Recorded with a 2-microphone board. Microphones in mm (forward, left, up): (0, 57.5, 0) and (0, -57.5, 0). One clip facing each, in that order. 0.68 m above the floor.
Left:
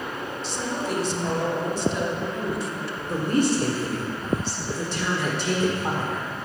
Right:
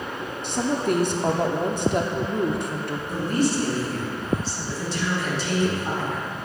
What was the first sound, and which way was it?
A woman speaking, 60° right (ahead or behind).